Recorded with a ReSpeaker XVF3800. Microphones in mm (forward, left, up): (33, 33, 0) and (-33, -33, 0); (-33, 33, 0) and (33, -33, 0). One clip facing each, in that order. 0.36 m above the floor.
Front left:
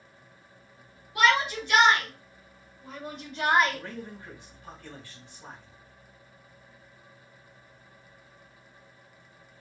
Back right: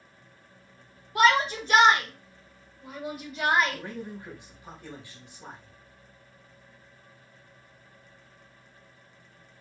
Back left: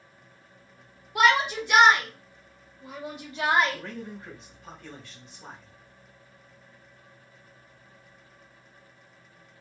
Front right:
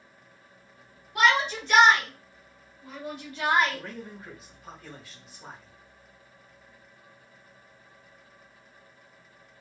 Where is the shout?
145° right, 1.9 m; by 3.8 s 120° left, 1.4 m.